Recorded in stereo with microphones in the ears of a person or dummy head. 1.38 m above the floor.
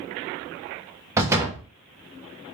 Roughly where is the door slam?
Centre.